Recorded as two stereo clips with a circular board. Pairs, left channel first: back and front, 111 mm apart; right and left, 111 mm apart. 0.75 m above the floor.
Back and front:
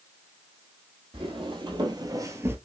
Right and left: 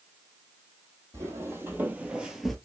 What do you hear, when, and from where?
1.1 s footsteps: 30° left, 1.3 m; by 2.5 s 5° right, 0.7 m